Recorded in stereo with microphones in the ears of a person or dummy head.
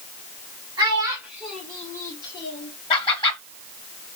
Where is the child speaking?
20° right (ahead or behind), 2.0 m; by 2.7 s 35° left (ahead or behind), 2 m.